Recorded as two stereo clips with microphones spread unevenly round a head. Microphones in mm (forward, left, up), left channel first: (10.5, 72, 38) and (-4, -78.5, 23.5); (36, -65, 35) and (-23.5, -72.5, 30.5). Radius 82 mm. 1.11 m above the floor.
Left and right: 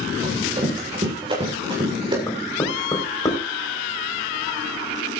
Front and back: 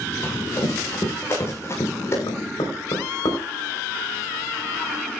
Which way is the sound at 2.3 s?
15° left.